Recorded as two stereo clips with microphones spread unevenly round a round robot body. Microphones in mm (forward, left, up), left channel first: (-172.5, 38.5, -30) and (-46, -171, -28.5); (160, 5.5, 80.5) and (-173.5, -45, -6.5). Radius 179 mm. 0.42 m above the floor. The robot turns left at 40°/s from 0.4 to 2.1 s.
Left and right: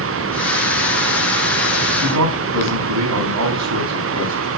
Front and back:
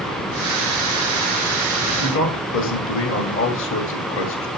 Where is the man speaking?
50° right, 3 m.